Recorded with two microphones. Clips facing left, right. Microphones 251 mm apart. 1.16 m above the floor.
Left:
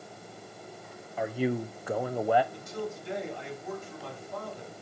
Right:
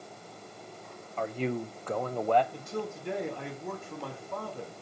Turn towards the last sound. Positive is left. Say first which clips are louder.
# even
turn(degrees=-60)  # may be behind; listen again after turning